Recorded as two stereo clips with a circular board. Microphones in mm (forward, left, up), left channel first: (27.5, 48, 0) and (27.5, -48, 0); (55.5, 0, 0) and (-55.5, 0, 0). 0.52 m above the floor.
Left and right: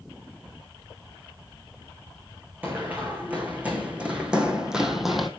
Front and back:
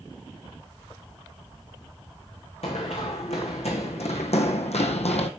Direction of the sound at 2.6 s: 20° right.